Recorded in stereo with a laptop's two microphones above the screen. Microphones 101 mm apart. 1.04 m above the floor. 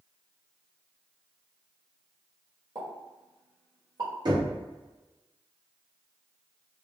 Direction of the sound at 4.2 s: 45° right (ahead or behind).